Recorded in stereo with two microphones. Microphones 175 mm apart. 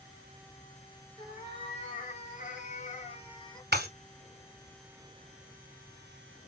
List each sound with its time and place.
1.2 s a cat meowing: 35° left (ahead or behind), 1.8 m; by 3.6 s 20° left (ahead or behind), 1.0 m
3.7 s breaking glass: 75° right (ahead or behind), 1.5 m